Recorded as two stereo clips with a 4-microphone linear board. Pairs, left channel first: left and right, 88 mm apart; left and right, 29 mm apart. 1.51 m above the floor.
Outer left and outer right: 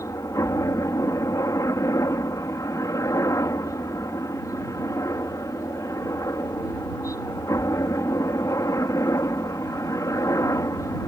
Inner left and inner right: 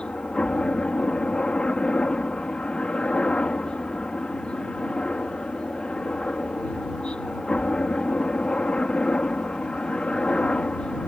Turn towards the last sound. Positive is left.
turn(degrees=40)  # may be behind; listen again after turning